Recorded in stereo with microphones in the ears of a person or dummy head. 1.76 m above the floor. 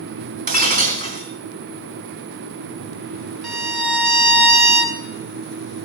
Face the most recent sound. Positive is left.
turn(degrees=0)  # may be behind; listen again after turning